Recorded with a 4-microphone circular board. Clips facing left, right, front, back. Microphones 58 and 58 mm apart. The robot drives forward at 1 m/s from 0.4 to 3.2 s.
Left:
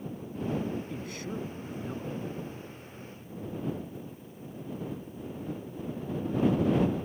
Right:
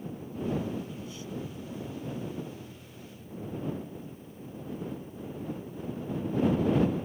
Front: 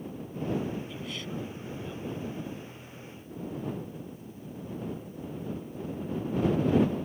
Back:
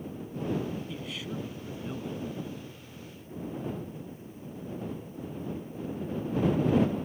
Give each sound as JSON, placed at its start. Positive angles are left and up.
{"t": 0.9, "sound": "a man speaking", "azimuth_deg": 90}